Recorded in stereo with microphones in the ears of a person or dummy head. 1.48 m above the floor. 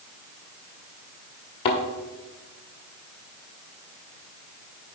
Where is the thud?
25° left (ahead or behind), 1.1 m.